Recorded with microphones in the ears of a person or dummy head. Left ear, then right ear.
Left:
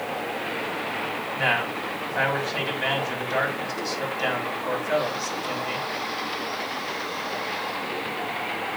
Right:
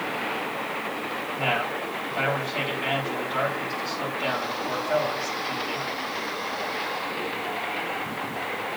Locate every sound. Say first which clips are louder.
1.4 s a man speaking: left 2 dB; 70° left (ahead or behind), 3.5 m